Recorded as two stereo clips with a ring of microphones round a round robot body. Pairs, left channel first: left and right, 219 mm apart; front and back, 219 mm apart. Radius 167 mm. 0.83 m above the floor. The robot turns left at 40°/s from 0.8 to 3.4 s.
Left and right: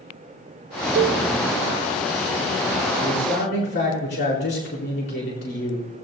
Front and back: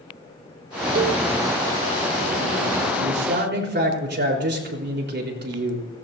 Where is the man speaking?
160° left, 4 m; by 5.9 s 140° left, 4 m.